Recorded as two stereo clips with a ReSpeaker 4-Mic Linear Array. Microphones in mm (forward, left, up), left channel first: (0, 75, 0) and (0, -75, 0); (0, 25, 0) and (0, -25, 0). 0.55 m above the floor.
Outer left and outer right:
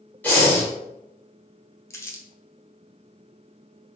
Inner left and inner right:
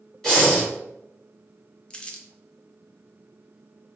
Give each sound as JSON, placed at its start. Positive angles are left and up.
{"t": 0.2, "sound": "breathing", "side_deg": 10, "distance_m": 1.8}
{"t": 1.9, "sound": "crumpling", "side_deg": 20, "distance_m": 0.6}